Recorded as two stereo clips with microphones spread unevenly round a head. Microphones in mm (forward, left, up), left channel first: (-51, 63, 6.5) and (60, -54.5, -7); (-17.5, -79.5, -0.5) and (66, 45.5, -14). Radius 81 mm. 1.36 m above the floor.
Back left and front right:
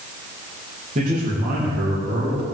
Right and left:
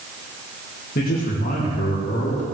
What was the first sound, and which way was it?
A man speaking, 95° right.